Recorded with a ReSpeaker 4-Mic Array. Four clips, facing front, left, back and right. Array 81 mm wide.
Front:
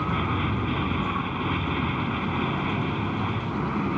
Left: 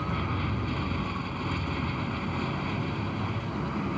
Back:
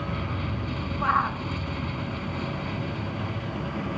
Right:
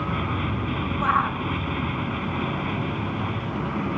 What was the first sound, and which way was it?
An aircraft, 30° right.